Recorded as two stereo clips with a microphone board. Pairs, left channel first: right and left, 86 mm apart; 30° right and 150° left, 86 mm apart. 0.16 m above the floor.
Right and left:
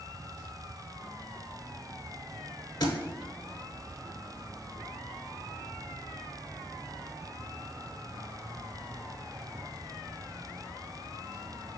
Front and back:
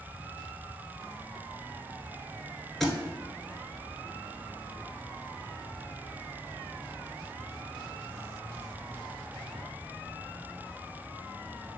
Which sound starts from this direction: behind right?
A thud, at 2.8 s.